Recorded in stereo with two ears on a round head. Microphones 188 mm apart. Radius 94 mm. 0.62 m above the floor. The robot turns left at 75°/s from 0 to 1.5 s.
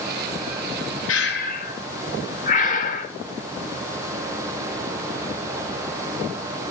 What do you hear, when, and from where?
1.1 s breathing: 65° left (ahead or behind), 1.7 m; by 3.1 s 40° left (ahead or behind), 1.7 m